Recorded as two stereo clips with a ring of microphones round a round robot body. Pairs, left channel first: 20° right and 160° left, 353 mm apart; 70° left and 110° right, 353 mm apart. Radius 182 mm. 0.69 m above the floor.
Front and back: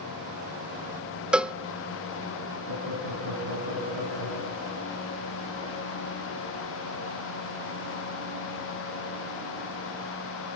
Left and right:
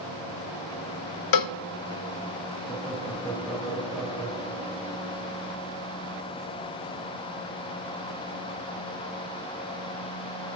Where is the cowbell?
70° left, 0.6 m.